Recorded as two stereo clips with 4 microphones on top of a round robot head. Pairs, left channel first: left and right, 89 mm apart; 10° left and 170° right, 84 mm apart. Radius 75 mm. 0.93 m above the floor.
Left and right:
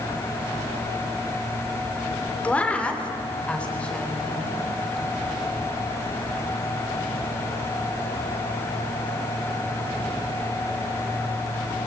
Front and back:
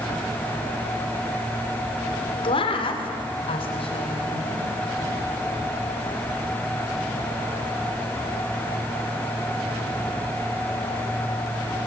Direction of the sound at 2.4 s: 15° left.